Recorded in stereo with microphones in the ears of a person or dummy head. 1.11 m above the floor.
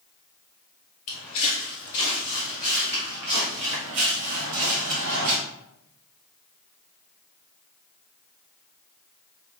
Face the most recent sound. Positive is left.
turn(degrees=-55)  # may be behind; listen again after turning